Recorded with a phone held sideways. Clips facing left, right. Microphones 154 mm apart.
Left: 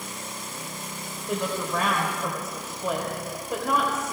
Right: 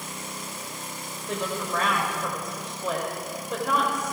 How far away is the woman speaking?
About 3 m.